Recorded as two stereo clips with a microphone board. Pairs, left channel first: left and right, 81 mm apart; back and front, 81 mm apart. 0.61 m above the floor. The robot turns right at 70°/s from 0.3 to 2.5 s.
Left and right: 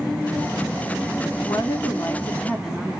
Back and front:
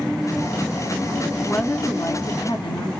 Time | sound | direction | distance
1.4 | a woman speaking | 95° left | 1.1 m